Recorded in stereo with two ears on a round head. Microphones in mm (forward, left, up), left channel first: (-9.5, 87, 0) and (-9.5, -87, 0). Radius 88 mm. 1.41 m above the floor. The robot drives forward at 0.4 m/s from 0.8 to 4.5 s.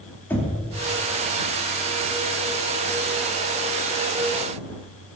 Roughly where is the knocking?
Centre.